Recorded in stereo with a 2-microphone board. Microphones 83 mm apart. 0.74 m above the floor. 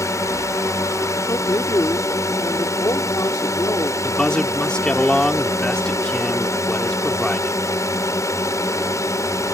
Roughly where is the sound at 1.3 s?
Left.